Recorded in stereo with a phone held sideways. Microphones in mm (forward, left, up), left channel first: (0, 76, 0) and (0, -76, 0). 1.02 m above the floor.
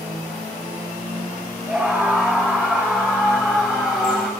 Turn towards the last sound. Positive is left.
turn(degrees=10)  # may be behind; listen again after turning